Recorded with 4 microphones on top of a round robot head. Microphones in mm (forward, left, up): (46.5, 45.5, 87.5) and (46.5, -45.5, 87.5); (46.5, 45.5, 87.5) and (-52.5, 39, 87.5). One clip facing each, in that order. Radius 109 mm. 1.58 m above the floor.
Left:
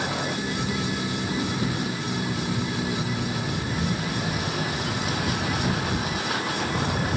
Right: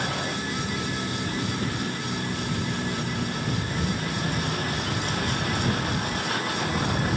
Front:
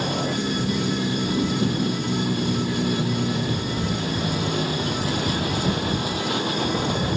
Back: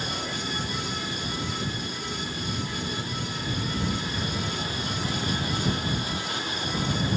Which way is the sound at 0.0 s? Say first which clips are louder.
Left 2 dB, front 8 dB; 10° left.